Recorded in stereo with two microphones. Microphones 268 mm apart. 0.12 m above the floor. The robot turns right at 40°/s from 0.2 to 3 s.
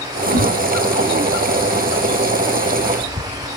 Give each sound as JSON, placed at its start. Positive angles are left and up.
{"t": 0.3, "sound": "a whoosh", "side_deg": -80, "distance_m": 7.0}